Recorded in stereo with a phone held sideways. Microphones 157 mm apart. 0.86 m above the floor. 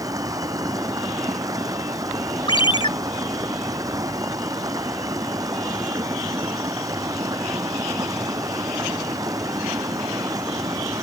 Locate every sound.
0.0 s running water: 25° right (ahead or behind)
2.5 s a ringtone: 30° left (ahead or behind)